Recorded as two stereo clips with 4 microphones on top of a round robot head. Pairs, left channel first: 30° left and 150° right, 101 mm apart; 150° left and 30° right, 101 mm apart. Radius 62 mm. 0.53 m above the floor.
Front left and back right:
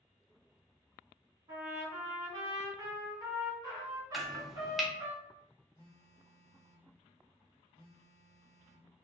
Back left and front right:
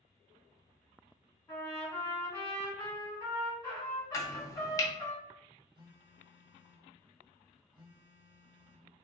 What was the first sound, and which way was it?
A trumpet, 165° right.